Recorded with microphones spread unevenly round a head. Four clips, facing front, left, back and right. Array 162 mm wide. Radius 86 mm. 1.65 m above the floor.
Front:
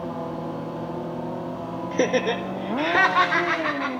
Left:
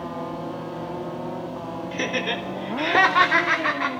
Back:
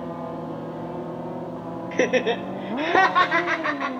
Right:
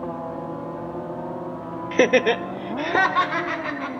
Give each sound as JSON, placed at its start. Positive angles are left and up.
{"t": 1.9, "sound": "laughter", "azimuth_deg": -80, "distance_m": 0.9}